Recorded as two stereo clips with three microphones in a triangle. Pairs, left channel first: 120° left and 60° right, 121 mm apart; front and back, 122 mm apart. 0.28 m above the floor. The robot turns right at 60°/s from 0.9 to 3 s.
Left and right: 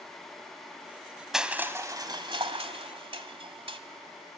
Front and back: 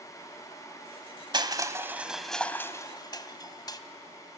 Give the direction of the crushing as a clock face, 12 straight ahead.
5 o'clock.